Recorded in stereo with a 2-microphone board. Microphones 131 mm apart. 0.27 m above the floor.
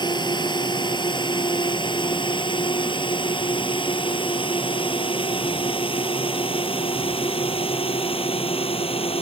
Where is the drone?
35° left (ahead or behind); by 9.2 s 45° left (ahead or behind).